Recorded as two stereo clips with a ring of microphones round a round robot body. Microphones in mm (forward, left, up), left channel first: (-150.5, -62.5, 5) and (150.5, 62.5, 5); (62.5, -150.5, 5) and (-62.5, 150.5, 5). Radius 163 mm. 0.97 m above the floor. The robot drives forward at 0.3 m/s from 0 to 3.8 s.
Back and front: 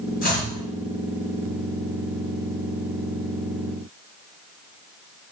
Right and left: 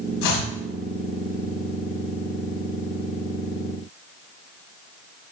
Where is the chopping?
95° right, 7 m.